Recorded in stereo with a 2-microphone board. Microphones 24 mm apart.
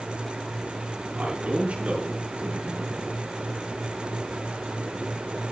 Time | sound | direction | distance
1.2 | a man speaking | 70° right (ahead or behind) | 6.5 m